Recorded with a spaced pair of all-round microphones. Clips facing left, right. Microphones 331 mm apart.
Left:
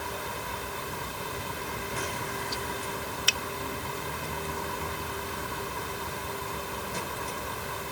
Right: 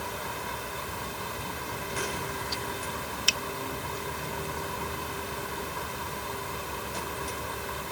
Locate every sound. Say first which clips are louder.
3.3 s a finger snap: even; 65° left (ahead or behind)